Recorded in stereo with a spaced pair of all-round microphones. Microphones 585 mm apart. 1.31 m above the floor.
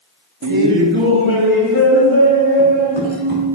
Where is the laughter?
30° right (ahead or behind), 0.7 m; by 3.5 s 70° right (ahead or behind), 4.5 m.